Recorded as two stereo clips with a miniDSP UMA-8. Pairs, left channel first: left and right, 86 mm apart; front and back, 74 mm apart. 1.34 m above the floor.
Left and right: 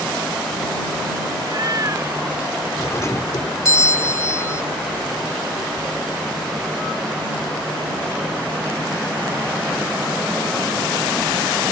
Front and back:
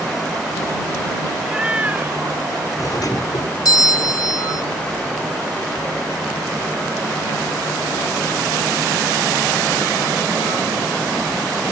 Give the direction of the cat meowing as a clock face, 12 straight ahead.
3 o'clock.